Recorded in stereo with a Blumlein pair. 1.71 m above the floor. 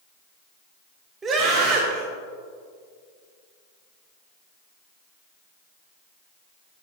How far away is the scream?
About 1.8 m.